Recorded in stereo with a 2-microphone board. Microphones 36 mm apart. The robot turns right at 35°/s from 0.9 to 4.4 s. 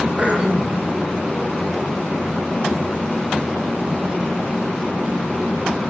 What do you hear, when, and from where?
0.2 s throat clearing: 35° right (ahead or behind), 6 m